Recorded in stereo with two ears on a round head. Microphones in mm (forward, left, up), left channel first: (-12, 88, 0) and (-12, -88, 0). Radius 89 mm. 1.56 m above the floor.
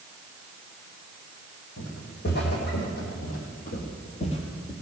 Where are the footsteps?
60° left (ahead or behind), 3.5 m; by 4.7 s 20° left (ahead or behind), 1.7 m.